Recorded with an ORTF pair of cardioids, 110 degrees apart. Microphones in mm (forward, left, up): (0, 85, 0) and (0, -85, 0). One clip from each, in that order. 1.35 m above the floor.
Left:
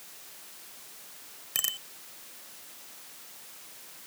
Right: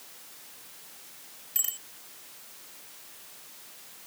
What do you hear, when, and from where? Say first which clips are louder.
1.6 s a bicycle bell: left 3 dB; 45° left